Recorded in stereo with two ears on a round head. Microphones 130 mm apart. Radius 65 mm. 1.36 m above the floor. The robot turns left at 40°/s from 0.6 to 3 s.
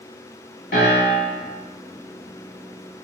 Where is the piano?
60° left (ahead or behind), 1.5 m; by 1.4 s 40° left (ahead or behind), 1.5 m.